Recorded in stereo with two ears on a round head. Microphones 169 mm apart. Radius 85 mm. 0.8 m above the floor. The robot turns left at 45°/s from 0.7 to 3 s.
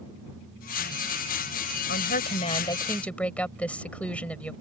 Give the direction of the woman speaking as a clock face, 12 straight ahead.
10 o'clock.